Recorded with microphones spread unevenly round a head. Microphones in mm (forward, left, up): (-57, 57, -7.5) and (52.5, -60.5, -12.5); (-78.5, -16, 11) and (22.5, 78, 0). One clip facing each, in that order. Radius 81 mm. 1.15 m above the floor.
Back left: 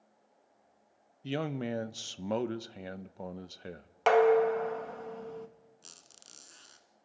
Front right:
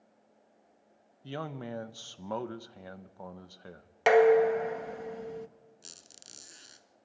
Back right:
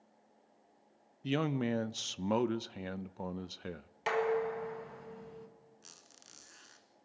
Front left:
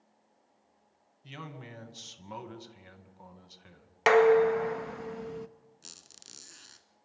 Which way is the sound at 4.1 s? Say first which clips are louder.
Front right 2 dB, front left 11 dB; 30° left.